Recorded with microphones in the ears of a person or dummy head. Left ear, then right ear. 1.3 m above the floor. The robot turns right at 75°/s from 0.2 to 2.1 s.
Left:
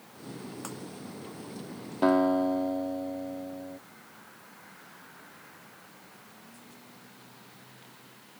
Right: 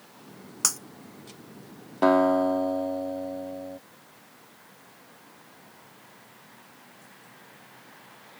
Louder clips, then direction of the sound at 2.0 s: Right 4 dB; 15° right (ahead or behind).